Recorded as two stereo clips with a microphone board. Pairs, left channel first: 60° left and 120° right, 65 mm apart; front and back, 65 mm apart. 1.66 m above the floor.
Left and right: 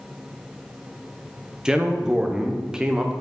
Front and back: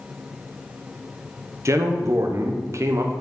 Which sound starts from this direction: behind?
A man speaking, at 1.6 s.